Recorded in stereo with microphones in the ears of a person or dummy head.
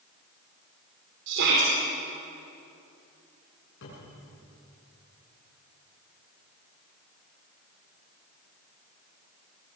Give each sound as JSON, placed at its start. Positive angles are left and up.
{"t": 1.3, "sound": "a shout", "side_deg": -70, "distance_m": 4.5}
{"t": 3.8, "sound": "a cupboard door", "side_deg": 70, "distance_m": 8.5}